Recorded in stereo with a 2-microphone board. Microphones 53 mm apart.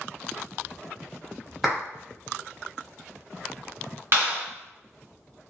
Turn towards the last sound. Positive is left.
turn(degrees=-50)  # may be behind; listen again after turning